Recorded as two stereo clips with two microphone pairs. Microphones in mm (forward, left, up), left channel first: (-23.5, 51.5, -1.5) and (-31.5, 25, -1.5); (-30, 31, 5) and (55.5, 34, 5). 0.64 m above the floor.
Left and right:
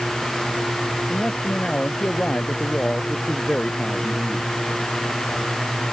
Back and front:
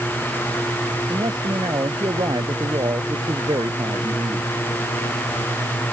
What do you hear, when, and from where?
1.1 s a man speaking: 30° left; by 4.5 s 35° left